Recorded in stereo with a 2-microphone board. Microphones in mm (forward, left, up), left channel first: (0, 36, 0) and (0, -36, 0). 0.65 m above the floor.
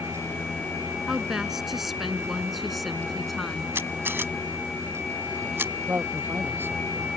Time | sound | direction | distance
1.1 | a woman speaking | 5° right (ahead or behind) | ?
3.8 | a camera shutter | 35° right (ahead or behind) | ?
5.9 | a man speaking | 30° right (ahead or behind) | ?